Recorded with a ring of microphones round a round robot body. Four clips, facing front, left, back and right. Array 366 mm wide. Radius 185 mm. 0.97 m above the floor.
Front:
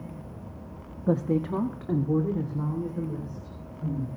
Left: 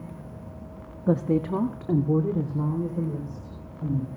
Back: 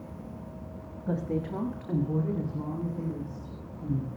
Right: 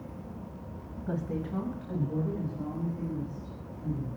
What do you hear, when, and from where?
1.1 s a woman speaking: 55° left, 1.4 m; by 4.1 s 80° left, 5.5 m